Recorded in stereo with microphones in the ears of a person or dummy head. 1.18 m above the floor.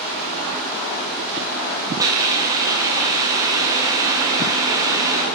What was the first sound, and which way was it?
A hiss, 20° right (ahead or behind).